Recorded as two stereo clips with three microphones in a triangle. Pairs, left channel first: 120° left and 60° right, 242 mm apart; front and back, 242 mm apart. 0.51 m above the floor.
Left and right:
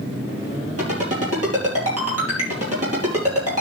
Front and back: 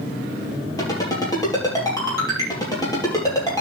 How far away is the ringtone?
About 5.5 m.